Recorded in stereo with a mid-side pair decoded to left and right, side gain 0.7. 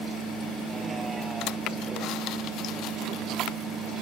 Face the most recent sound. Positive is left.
turn(degrees=-40)